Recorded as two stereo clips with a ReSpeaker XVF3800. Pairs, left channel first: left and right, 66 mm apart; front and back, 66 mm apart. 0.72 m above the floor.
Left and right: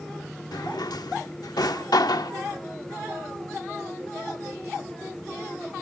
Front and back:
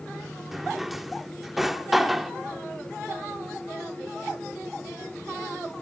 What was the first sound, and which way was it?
A drawer, 95° left.